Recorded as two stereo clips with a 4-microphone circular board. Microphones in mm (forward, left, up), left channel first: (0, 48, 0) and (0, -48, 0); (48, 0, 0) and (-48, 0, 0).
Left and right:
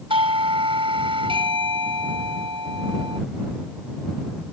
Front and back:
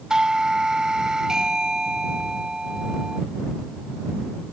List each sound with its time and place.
0.1 s a doorbell: 95° right